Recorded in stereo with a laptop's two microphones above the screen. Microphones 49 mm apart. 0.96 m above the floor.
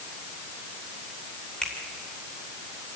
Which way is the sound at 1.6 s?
20° left (ahead or behind).